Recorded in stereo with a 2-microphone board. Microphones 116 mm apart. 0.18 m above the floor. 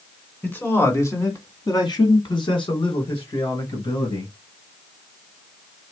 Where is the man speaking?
15° left (ahead or behind), 1.9 m; by 4.3 s 50° left (ahead or behind), 3 m.